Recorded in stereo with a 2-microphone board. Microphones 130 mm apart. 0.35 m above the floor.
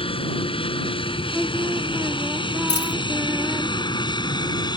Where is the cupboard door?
I don't hear a cupboard door.